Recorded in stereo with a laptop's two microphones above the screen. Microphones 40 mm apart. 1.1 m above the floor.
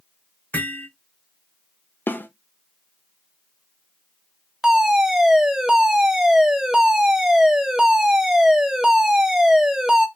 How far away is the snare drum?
About 0.8 m.